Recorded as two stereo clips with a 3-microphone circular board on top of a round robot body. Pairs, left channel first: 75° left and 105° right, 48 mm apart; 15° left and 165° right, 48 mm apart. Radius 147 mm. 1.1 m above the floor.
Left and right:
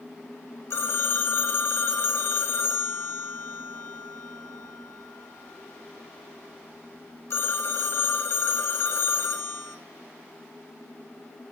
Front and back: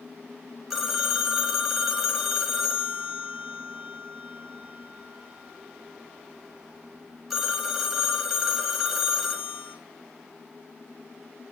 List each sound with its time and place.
0.7 s a phone ringing: 105° left, 0.9 m